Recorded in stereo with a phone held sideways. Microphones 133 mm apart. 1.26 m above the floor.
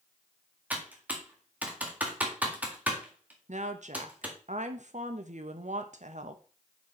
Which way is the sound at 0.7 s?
10° right (ahead or behind).